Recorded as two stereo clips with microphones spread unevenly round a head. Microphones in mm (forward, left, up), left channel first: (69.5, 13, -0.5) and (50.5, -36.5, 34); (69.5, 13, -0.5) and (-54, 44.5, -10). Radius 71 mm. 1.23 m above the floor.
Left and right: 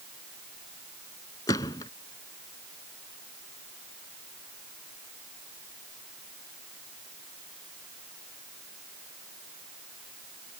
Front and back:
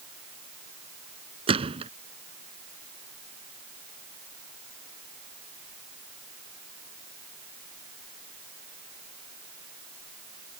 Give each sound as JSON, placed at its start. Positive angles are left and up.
{"t": 1.5, "sound": "a gunshot", "azimuth_deg": 120}